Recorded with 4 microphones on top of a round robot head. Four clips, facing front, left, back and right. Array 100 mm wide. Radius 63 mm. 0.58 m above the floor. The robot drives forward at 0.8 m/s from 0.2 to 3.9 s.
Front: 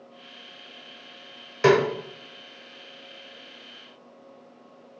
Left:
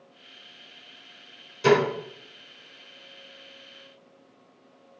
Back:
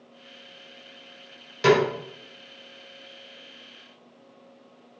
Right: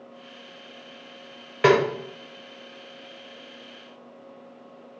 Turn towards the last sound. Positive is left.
turn(degrees=-115)